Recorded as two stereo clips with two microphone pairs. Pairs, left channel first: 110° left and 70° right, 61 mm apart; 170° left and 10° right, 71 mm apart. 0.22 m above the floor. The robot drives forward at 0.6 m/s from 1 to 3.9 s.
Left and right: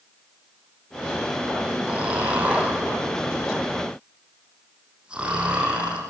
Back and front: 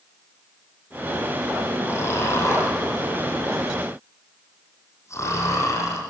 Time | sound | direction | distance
1.9 | snoring | 135° right | 8 m